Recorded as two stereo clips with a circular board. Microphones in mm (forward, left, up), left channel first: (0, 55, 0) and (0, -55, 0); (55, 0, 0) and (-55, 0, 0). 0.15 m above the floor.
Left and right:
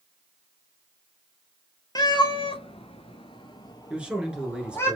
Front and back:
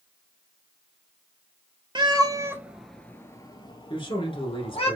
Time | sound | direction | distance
1.9 | a cat meowing | 140° left | 0.9 m
3.9 | a man speaking | 10° right | 1.7 m